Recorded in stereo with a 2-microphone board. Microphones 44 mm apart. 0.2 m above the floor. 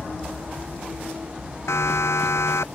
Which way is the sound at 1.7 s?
80° left.